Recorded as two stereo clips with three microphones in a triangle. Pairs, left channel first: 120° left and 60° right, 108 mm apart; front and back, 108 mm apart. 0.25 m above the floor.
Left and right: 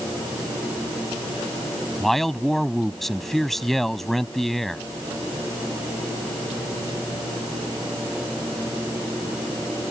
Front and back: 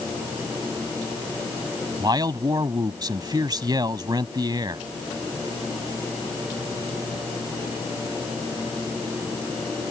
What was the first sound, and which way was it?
A man speaking, 155° right.